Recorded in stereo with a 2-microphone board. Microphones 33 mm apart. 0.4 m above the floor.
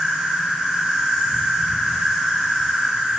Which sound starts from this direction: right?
An insect, at 0.0 s.